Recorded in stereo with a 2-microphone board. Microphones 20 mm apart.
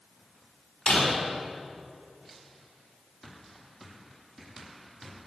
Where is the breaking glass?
55° left (ahead or behind), 4 m.